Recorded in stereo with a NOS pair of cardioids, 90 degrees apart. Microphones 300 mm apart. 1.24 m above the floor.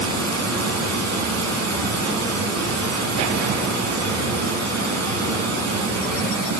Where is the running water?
55° right, 1.6 m.